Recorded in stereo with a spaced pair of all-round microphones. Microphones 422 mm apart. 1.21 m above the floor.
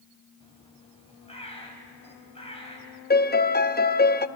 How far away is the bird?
About 4 m.